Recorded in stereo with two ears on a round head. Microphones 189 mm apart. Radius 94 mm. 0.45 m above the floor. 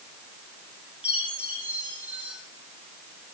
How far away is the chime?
About 9.5 m.